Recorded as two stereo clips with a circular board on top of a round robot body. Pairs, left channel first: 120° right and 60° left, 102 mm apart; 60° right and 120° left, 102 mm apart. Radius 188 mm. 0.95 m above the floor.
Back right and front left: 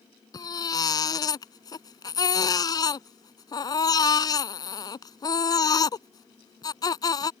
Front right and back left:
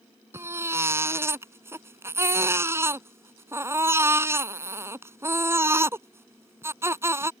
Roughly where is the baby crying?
Behind.